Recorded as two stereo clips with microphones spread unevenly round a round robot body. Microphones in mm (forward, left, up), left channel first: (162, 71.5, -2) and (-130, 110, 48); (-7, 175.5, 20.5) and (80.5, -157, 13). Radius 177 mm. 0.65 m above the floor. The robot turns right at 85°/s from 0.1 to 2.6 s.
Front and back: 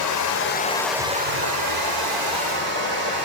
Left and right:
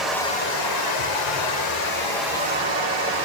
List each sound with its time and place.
0.0 s running water: 15° left, 1.4 m; by 3.3 s 135° right, 1.4 m